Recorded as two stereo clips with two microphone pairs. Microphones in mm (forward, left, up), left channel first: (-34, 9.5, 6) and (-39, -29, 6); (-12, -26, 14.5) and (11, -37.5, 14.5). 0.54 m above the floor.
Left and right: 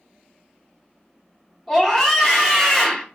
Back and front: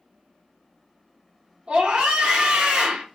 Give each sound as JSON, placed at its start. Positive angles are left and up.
{"t": 1.7, "sound": "a scream", "azimuth_deg": -10, "distance_m": 2.5}